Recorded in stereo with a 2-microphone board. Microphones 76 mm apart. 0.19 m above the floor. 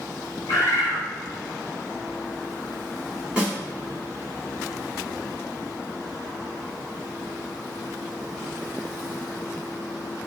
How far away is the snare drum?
About 1.6 m.